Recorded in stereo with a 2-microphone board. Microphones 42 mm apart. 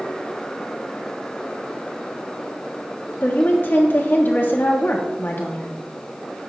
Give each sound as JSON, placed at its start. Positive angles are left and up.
{"t": 3.2, "sound": "a woman speaking", "side_deg": 45, "distance_m": 1.4}